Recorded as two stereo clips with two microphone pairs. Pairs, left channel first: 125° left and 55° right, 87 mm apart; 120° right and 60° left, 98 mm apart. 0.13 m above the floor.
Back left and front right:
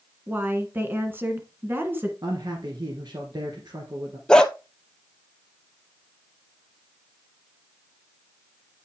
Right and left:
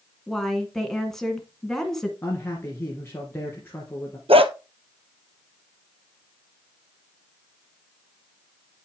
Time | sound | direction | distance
0.3 | a woman speaking | 45° right | 1.5 m
2.2 | a man speaking | 65° right | 1.8 m
4.3 | a dog barking | 50° left | 0.8 m